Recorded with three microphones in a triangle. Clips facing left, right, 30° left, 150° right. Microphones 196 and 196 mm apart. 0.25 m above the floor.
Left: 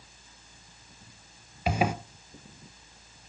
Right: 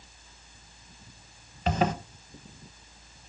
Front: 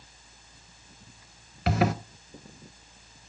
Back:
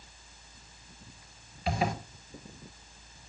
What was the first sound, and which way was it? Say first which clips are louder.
A zipper: right 1 dB, front 5 dB; 10° left.